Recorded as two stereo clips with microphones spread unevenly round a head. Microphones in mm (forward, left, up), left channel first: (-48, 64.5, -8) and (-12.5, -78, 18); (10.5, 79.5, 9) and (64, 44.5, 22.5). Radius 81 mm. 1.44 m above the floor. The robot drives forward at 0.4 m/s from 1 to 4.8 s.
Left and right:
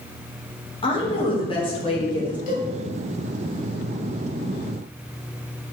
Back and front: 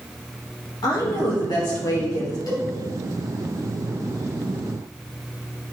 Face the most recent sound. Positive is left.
turn(degrees=145)